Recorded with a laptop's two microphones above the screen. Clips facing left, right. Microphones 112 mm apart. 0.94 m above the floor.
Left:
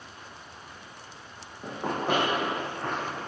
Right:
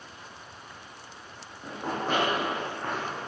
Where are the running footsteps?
25° left (ahead or behind), 2 m; by 3.2 s 5° right (ahead or behind), 4 m.